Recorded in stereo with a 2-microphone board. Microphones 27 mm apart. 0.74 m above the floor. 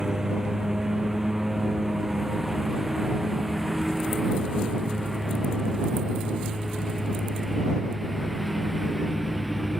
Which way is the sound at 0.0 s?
20° right (ahead or behind).